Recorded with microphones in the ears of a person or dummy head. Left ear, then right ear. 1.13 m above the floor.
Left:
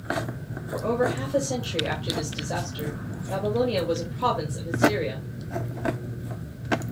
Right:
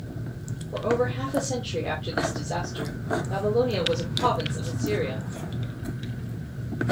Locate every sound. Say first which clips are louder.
0.7 s a woman speaking: even; 10° left (ahead or behind), 2 m